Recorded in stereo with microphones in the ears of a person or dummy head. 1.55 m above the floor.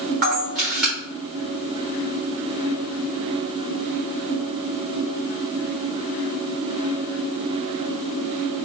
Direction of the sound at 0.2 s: 50° right (ahead or behind).